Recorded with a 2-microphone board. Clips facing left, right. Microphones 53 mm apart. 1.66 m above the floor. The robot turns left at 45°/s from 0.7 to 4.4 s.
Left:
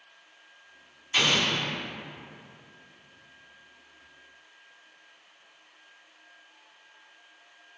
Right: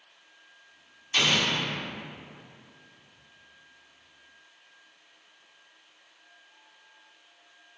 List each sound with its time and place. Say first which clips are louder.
1.1 s an explosion: even; 15° left (ahead or behind), 1.0 m; by 1.7 s 10° right (ahead or behind), 1.0 m